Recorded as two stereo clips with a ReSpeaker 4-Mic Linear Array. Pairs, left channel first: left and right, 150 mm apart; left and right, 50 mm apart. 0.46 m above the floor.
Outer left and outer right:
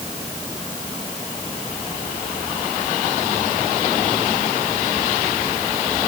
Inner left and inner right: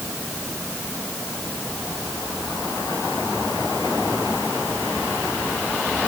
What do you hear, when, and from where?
Only background noise.